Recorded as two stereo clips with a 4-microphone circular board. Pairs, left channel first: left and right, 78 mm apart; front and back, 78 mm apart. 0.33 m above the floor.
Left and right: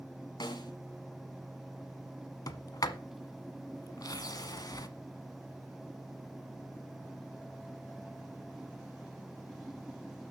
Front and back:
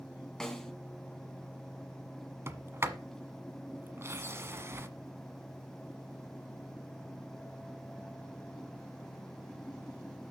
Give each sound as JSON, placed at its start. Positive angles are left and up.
{"t": 0.4, "sound": "a snare drum", "azimuth_deg": 85, "distance_m": 2.0}
{"t": 2.5, "sound": "a sliding door", "azimuth_deg": 125, "distance_m": 1.1}